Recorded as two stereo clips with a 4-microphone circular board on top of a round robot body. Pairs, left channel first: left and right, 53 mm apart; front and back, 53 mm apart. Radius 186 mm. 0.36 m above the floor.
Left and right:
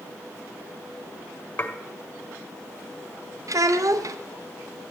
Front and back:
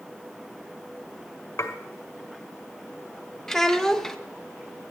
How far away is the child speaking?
About 1.2 m.